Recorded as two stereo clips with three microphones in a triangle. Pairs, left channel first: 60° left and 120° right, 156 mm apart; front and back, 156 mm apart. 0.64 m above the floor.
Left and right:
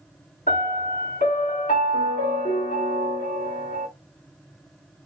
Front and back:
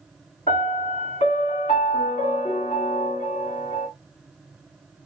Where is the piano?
45° left, 2 m.